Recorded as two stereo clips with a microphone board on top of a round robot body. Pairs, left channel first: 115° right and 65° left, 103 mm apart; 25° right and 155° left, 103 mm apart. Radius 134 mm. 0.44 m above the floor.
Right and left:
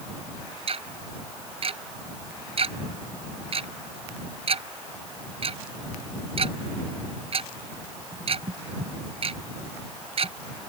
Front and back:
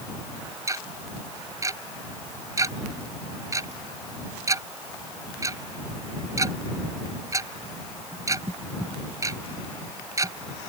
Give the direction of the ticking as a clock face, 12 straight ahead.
9 o'clock.